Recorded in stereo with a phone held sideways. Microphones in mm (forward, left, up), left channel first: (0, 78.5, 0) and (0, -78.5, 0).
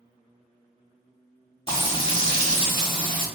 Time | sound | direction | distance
1.7 | frying | 35° left (ahead or behind) | 1.2 m